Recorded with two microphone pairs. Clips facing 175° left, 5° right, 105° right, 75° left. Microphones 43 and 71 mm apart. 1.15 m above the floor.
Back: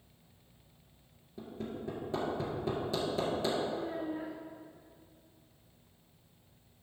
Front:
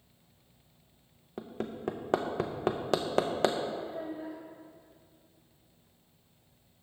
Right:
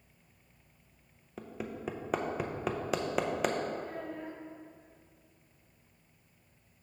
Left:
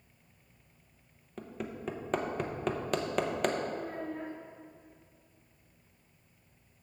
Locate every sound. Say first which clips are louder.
1.4 s hammering: front 3 dB, even; 20° right, 0.7 m
3.7 s a child speaking: back 1 dB, left 2 dB; 140° left, 0.9 m